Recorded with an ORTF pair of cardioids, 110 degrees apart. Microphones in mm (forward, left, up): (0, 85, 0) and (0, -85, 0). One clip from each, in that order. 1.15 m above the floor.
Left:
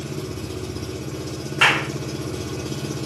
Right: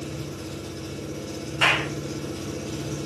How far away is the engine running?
About 8 m.